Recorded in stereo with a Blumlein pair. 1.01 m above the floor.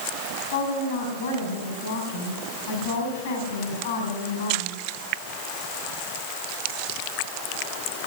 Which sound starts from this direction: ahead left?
A woman speaking, at 0.5 s.